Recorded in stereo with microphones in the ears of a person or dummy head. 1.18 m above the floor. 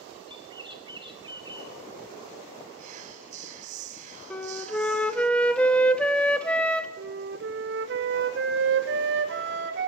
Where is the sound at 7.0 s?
60° right (ahead or behind), 0.8 m.